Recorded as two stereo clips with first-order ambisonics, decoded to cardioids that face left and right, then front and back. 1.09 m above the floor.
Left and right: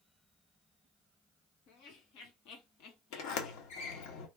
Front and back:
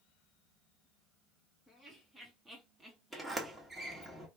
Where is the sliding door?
95° left, 1.0 m.